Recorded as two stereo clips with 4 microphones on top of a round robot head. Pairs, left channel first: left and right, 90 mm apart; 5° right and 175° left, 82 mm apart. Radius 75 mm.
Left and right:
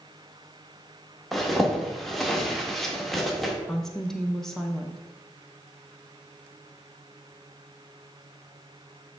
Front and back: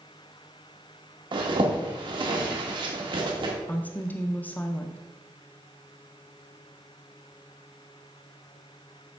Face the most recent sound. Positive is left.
turn(degrees=15)